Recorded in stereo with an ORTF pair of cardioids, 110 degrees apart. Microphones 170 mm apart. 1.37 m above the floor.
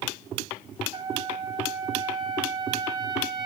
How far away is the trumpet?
About 3 m.